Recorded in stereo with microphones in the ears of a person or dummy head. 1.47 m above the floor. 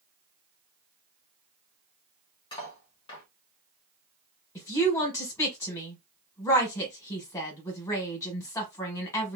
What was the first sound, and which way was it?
Cutlery clinking, 25° left (ahead or behind).